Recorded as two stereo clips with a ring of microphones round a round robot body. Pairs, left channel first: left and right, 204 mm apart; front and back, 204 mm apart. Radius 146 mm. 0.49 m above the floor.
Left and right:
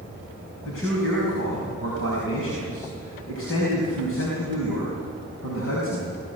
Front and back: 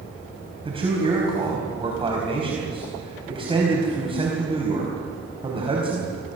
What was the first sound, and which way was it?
A man speaking, 120° left.